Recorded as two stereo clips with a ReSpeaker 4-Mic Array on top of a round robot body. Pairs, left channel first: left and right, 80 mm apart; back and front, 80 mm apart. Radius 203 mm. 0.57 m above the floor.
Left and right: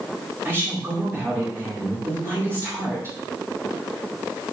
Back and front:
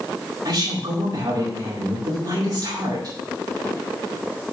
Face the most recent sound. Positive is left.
turn(degrees=-35)